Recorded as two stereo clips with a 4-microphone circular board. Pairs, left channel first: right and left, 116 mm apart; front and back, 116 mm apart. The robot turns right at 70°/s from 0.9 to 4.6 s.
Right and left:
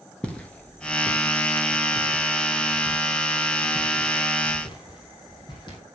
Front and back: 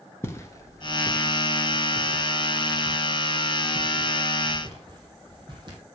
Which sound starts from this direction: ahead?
Footsteps, at 0.2 s.